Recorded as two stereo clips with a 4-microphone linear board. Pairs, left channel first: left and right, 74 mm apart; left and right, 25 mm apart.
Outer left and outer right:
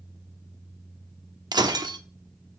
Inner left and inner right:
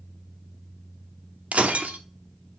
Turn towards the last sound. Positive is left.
turn(degrees=-75)  # may be behind; listen again after turning